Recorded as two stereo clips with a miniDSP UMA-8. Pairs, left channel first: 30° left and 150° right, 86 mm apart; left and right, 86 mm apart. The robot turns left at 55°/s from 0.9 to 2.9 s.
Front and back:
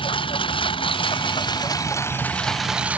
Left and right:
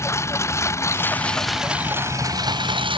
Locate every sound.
0.0 s a lawn mower: 30° left; by 3.0 s 75° right